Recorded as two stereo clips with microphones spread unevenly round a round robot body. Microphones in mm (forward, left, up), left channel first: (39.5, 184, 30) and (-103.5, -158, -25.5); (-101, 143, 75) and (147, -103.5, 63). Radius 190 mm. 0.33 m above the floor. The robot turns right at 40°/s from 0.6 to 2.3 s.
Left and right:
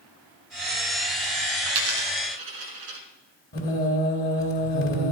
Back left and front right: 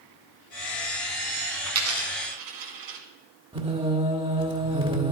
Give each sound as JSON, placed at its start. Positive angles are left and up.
{"t": 1.7, "sound": "a dropped coin", "azimuth_deg": -100, "distance_m": 1.7}
{"t": 3.5, "sound": "singing", "azimuth_deg": 20, "distance_m": 1.6}